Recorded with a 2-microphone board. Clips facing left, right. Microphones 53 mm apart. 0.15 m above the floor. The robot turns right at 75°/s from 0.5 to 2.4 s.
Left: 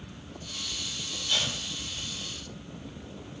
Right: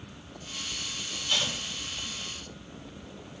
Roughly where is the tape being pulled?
Centre.